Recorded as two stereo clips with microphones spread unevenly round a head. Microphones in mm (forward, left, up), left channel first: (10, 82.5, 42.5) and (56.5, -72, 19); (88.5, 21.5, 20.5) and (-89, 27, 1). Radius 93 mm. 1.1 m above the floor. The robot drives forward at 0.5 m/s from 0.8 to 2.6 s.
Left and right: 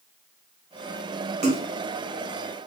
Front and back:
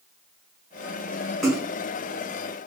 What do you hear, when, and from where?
1.4 s a splash: 95° right, 1.1 m; by 1.7 s 105° right, 1.2 m